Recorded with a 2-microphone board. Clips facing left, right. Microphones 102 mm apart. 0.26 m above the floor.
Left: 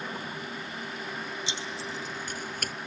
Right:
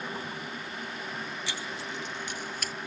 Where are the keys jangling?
20° left (ahead or behind); by 2.7 s 55° left (ahead or behind).